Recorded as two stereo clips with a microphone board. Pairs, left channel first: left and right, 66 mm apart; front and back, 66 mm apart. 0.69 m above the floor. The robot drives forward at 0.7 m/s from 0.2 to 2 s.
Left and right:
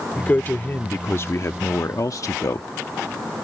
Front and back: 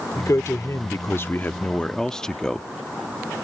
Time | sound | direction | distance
0.2 | a man speaking | 25° left | ?